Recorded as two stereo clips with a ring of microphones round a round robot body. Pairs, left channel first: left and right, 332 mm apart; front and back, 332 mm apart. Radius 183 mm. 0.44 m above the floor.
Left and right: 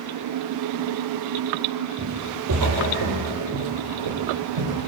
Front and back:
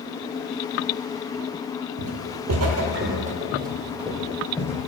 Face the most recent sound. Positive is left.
turn(degrees=-80)